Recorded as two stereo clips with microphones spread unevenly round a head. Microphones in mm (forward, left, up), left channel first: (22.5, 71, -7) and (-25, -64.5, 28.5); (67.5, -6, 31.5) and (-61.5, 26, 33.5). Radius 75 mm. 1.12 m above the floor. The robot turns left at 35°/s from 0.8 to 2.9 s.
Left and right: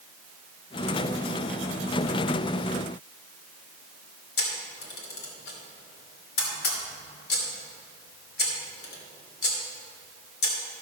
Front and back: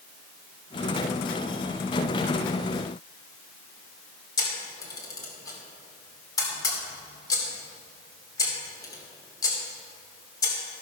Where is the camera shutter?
50° left, 2.5 m.